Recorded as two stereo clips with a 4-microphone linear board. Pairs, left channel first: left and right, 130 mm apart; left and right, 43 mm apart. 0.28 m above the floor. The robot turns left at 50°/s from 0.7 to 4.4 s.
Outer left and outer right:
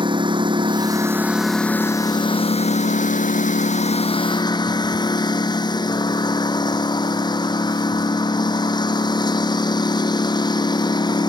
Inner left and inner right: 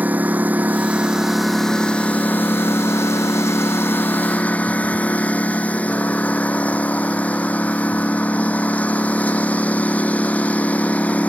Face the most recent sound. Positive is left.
turn(degrees=35)